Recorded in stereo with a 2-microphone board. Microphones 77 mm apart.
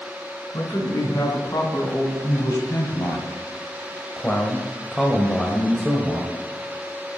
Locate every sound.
0.5 s a man speaking: 50° left (ahead or behind), 3 m; by 6.4 s 20° right (ahead or behind), 1.4 m